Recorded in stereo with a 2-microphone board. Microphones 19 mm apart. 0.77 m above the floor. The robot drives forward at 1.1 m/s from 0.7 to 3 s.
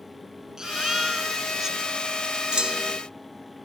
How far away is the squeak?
I don't hear a squeak.